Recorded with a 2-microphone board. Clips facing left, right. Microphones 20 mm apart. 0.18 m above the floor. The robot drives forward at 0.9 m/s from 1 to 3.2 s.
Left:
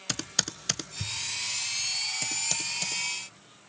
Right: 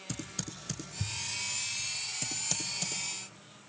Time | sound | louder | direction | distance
0.1 | typing on a keyboard | left 10 dB | 55° left (ahead or behind) | 0.6 m